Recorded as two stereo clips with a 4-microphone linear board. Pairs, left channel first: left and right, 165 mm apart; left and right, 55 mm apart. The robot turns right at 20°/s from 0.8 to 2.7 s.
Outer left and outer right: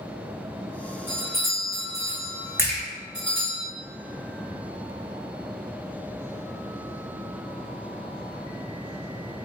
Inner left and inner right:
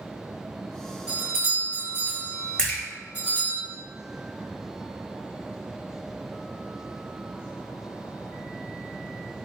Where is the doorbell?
10° right (ahead or behind), 1.1 m; by 3.6 s 25° right (ahead or behind), 1.1 m.